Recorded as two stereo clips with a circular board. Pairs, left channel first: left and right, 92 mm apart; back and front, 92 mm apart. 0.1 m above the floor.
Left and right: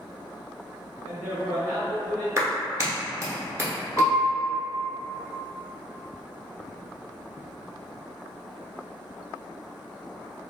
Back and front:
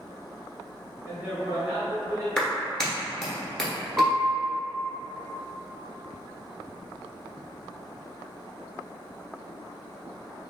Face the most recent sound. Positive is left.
turn(degrees=65)